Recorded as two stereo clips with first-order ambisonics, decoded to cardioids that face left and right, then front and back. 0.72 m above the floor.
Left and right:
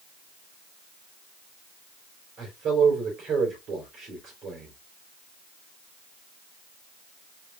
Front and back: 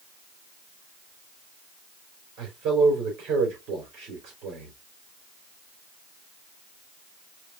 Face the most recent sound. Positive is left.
turn(degrees=-145)